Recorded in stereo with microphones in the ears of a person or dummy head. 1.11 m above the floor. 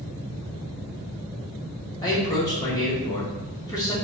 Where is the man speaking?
15° left (ahead or behind), 1.8 m.